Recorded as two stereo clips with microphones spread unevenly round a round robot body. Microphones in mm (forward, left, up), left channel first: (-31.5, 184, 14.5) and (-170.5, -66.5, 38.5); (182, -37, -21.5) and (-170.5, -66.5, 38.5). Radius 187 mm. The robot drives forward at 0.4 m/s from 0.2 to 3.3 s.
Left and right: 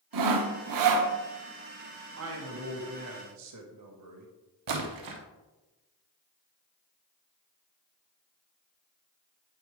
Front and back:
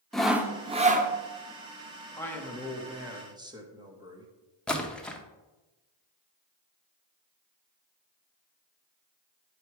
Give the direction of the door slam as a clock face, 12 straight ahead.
I don't hear a door slam.